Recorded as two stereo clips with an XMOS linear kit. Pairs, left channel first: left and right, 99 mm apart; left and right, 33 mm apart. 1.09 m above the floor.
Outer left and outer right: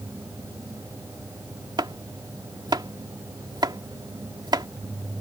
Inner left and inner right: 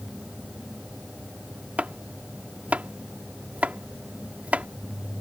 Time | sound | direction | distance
1.8 | chopping | 45° right (ahead or behind) | ?